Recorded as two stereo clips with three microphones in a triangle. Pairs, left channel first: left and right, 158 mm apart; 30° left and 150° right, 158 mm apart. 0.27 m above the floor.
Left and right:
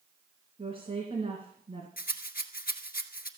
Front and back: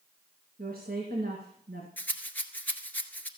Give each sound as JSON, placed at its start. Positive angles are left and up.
{"t": 0.6, "sound": "a woman speaking", "azimuth_deg": -140, "distance_m": 3.0}
{"t": 2.0, "sound": "a rattle", "azimuth_deg": 110, "distance_m": 1.4}